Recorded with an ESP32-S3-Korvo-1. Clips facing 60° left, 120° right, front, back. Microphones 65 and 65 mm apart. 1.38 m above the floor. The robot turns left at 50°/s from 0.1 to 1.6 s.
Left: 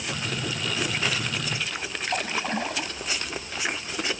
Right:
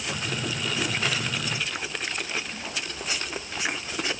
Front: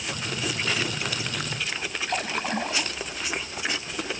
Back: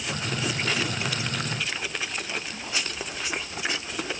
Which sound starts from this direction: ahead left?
A splash, at 2.1 s.